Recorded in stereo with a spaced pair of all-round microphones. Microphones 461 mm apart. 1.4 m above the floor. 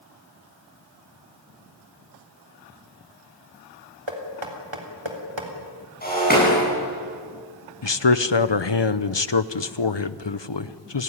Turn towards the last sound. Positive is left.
turn(degrees=70)  # may be behind; listen again after turning